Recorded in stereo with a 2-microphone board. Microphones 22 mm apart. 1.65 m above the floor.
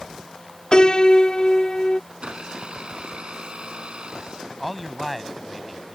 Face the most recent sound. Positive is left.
turn(degrees=0)  # may be behind; listen again after turning